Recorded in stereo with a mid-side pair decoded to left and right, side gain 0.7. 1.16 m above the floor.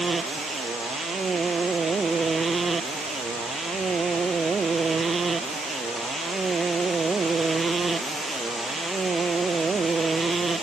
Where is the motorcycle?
25° right.